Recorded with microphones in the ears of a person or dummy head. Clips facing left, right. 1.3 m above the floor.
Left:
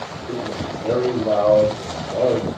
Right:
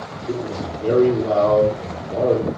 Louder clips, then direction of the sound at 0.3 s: Right 1 dB; 40° right (ahead or behind).